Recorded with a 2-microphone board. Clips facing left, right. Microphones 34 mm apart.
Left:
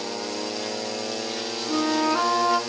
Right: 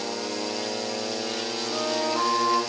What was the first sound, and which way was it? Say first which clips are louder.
A flute: left 5 dB; 45° left (ahead or behind).